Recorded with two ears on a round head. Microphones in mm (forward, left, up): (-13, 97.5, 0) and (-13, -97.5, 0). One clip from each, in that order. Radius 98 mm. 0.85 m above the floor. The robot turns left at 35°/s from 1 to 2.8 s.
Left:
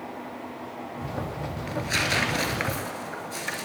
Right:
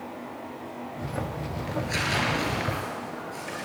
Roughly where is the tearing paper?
Left.